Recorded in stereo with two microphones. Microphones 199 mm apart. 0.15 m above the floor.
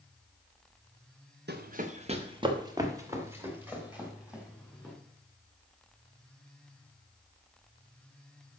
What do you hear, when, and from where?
1.5 s running footsteps: 55° right (ahead or behind), 1.1 m; by 4.9 s 5° right (ahead or behind), 4.5 m